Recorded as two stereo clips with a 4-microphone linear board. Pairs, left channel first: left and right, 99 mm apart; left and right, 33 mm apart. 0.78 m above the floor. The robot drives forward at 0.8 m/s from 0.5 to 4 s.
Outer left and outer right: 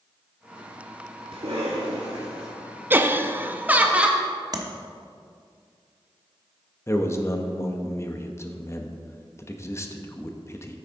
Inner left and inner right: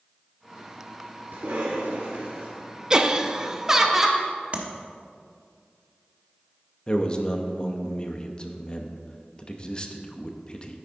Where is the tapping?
40° right (ahead or behind), 1.1 m.